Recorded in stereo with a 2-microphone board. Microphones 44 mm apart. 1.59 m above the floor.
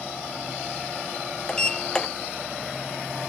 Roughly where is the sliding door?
Centre.